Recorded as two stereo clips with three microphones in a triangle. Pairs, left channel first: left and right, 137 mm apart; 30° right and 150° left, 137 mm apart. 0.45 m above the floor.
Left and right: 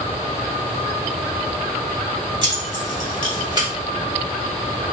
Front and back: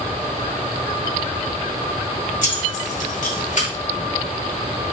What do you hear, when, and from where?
2.4 s keys jangling: 40° right, 1.9 m; by 3.7 s 35° right, 1.3 m